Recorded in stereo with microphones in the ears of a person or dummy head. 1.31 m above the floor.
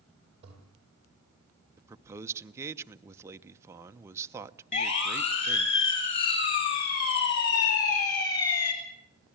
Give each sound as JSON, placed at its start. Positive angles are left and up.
{"t": 0.4, "sound": "a toilet flushing", "side_deg": -35, "distance_m": 8.0}
{"t": 1.8, "sound": "a man speaking", "side_deg": -15, "distance_m": 0.9}
{"t": 4.7, "sound": "a siren", "side_deg": 65, "distance_m": 6.5}